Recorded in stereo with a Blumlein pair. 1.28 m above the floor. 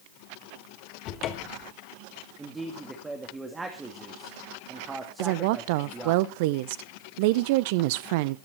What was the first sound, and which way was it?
A cupboard door, 35° left.